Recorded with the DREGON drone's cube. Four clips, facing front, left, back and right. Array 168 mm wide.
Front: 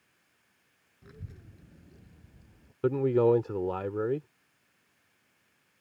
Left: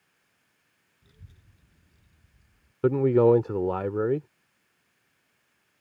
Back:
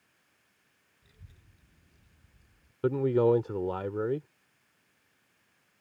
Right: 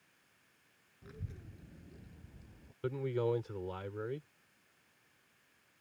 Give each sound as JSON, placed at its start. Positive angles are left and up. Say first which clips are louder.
{"t": 1.0, "sound": "a child speaking", "louder": "right 9 dB, front 13 dB", "azimuth_deg": -40}
{"t": 2.8, "sound": "a man speaking", "louder": "left 15 dB, front 1 dB", "azimuth_deg": 85}